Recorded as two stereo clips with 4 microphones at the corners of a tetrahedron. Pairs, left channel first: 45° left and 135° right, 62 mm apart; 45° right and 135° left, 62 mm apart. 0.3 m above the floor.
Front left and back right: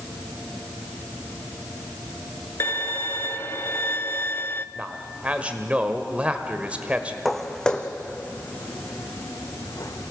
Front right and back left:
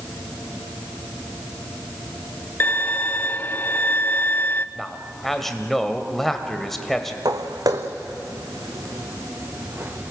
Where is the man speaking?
125° right, 1.4 m.